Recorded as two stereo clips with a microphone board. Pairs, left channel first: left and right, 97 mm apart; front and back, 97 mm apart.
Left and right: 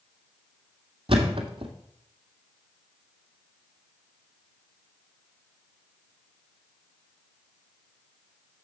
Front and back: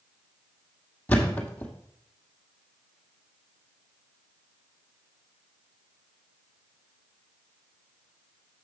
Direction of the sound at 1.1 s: 75° right.